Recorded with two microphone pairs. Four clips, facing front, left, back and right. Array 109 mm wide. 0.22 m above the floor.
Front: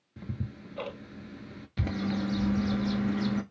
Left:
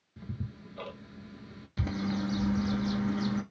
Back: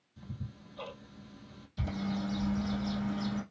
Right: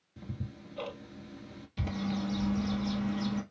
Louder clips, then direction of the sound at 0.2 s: Left 1 dB, front 7 dB; straight ahead.